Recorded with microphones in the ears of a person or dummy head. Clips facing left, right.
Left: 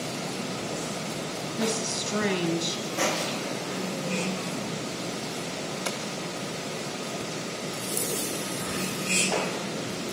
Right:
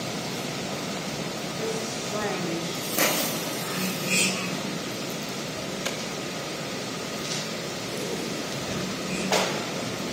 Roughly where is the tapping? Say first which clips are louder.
Right 1 dB; centre.